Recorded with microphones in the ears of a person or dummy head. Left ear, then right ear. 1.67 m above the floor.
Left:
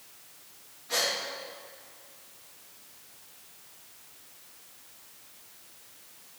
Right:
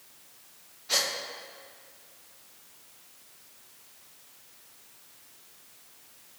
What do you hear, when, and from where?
0.9 s a gasp: 70° right (ahead or behind), 1.1 m